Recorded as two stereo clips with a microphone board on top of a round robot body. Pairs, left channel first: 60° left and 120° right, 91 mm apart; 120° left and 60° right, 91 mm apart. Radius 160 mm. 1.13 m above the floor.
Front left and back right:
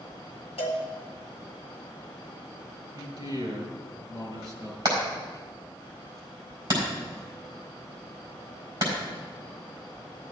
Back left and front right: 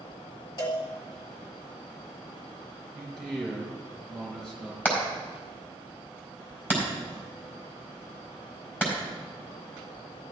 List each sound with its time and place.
0.6 s a cowbell: 75° left, 1.7 m
2.9 s a man speaking: 160° right, 4.5 m
4.8 s hammering: 170° right, 4.5 m